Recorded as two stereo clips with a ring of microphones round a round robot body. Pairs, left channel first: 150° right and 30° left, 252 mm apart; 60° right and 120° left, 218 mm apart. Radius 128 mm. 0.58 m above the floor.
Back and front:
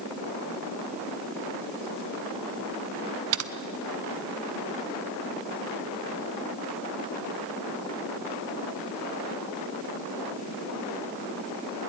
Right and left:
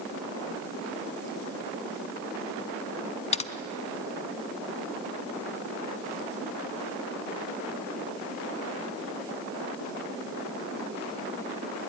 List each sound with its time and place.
3.3 s typing on a keyboard: straight ahead, 1.0 m